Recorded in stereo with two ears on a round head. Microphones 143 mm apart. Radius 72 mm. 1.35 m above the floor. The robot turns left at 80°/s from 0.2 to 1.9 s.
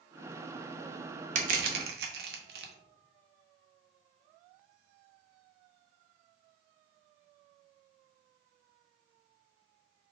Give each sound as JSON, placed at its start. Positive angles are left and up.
{"t": 1.4, "sound": "crushing", "side_deg": -45, "distance_m": 0.6}